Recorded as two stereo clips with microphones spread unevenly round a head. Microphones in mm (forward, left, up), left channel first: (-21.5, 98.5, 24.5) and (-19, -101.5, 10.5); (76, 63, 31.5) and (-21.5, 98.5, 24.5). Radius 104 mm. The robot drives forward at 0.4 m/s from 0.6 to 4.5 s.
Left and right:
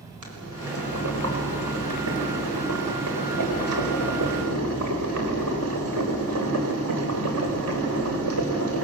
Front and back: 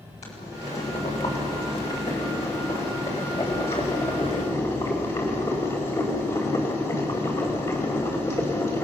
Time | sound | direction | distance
0.2 | boiling | 70° right | 5 m